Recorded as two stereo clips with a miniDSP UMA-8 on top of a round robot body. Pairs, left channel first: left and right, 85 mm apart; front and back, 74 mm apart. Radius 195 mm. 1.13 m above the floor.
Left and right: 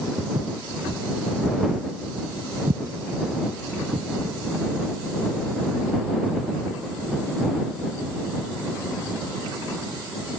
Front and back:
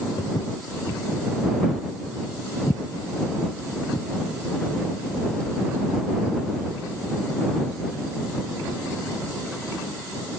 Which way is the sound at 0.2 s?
45° right.